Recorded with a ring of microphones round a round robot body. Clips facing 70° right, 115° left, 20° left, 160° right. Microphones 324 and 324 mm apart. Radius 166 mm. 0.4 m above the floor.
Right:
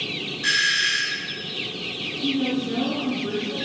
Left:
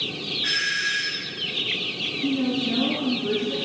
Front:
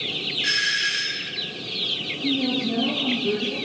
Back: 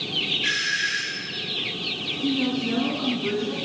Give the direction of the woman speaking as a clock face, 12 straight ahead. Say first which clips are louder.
Even, even; 6 o'clock.